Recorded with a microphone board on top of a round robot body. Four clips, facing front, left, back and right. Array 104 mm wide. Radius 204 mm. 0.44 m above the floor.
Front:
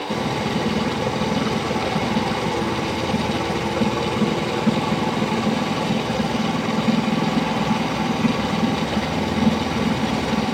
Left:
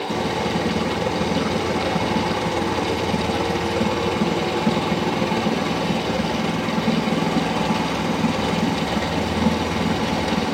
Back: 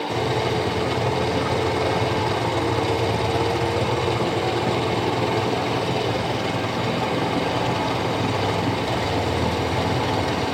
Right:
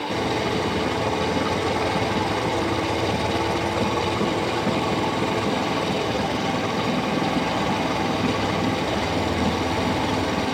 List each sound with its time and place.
Only background noise.